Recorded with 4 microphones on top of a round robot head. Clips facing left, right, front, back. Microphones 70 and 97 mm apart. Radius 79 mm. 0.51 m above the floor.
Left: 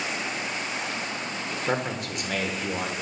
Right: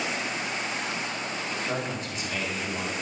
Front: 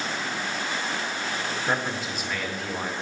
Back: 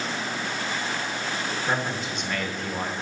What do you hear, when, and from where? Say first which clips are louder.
1.7 s a man speaking: left 3 dB, even; 85° left, 1.3 m